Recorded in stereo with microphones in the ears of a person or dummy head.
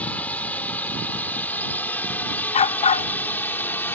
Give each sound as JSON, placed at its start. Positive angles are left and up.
{"t": 0.0, "sound": "a drone", "side_deg": 10}
{"t": 2.5, "sound": "a dog barking", "side_deg": 35}